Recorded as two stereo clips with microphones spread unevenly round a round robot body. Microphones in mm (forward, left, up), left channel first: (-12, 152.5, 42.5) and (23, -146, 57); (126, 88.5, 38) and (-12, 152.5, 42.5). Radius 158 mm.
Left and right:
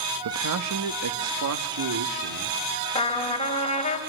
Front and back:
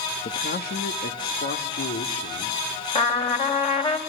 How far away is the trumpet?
About 4.5 m.